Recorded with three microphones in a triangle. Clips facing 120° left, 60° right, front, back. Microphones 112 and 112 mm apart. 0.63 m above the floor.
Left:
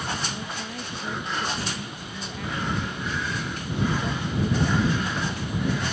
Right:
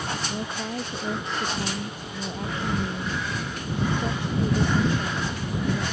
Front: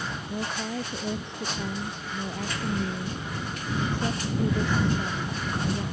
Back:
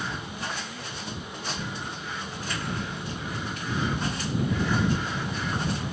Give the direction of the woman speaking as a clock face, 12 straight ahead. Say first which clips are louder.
Right 4 dB, front 4 dB; 12 o'clock.